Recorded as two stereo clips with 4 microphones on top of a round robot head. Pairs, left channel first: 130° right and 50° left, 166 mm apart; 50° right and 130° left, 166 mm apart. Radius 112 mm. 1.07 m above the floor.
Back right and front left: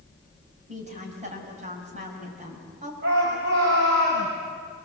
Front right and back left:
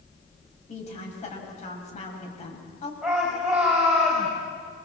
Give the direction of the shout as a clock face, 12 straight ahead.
10 o'clock.